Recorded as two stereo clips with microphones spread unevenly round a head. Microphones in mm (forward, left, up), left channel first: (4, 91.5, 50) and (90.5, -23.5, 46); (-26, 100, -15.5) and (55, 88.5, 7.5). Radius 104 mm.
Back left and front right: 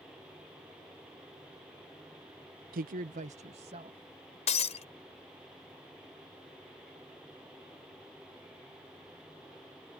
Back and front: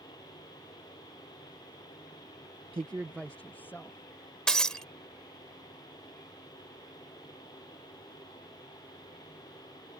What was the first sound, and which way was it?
A woman speaking, 65° right.